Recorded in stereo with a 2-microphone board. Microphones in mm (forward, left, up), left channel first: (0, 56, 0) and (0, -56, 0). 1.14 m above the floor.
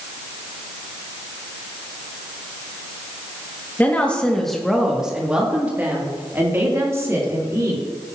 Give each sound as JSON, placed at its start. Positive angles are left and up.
{"t": 3.8, "sound": "a woman speaking", "side_deg": 15, "distance_m": 1.9}